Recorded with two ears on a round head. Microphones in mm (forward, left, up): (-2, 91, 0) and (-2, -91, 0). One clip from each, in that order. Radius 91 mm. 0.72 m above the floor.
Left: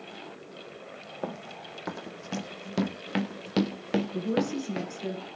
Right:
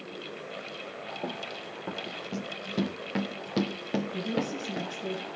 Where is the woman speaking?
40° left (ahead or behind), 9 m.